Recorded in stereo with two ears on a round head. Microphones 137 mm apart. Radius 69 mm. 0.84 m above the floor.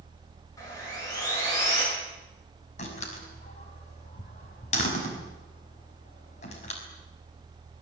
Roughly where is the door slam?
Left.